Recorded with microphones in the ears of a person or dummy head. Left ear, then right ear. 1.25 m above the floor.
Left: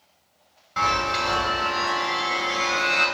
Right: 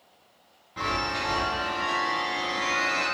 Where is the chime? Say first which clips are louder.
Left 6 dB; 45° left (ahead or behind), 1.7 m.